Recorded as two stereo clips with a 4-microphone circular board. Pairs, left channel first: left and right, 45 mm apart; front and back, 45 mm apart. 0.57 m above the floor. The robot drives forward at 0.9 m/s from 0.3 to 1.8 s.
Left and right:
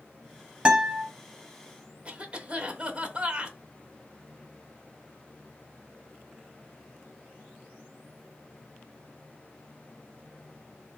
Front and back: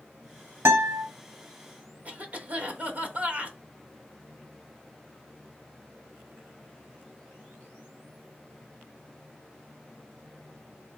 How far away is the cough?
About 0.7 m.